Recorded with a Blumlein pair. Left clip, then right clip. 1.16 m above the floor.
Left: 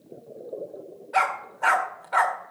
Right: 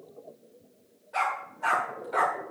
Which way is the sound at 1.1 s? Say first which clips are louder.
Left 5 dB; 25° left.